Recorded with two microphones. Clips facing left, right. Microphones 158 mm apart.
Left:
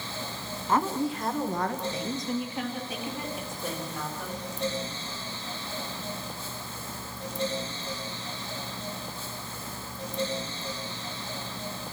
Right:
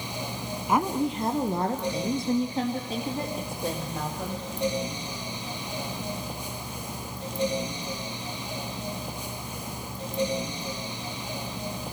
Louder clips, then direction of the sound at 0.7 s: Right 1 dB; 10° right (ahead or behind).